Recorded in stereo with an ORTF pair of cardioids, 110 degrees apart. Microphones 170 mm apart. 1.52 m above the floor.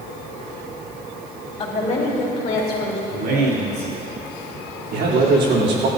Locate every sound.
1.6 s a woman speaking: 40° left, 4 m; by 3.0 s 65° left, 3.5 m
3.1 s a man speaking: 65° right, 4.5 m
4.9 s a man speaking: 70° right, 3.5 m